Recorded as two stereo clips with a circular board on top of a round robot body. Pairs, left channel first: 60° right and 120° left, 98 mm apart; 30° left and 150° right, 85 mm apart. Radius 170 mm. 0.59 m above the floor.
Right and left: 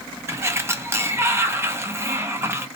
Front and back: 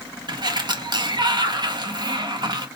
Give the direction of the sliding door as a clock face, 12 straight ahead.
6 o'clock.